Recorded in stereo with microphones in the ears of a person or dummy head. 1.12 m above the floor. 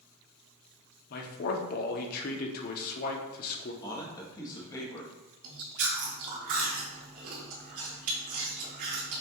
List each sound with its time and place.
1.1 s a man speaking: 60° left (ahead or behind), 0.8 m
3.8 s a man speaking: 25° left (ahead or behind), 1.0 m
5.4 s chewing: 50° right (ahead or behind), 1.8 m